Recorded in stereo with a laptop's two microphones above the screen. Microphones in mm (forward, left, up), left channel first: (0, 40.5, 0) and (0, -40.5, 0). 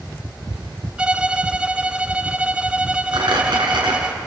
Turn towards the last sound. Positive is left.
turn(degrees=-70)  # may be behind; listen again after turning